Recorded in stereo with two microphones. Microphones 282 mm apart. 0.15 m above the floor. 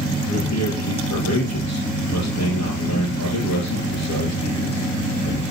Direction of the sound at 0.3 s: 65° left (ahead or behind).